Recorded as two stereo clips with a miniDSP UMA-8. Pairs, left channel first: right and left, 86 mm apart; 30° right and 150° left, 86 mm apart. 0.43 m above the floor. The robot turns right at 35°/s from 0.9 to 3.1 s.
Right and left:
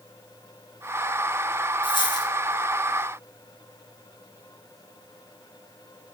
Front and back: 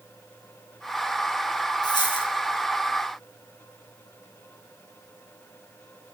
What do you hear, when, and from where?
1.8 s a dropped coin: 65° right, 2.5 m; by 2.3 s 50° right, 2.5 m